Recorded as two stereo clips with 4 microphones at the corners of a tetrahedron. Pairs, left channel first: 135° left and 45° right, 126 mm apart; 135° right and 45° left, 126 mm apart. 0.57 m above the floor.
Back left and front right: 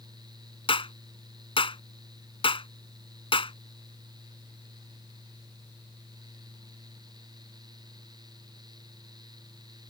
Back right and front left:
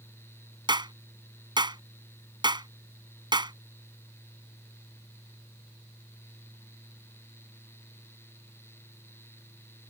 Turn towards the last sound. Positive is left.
turn(degrees=95)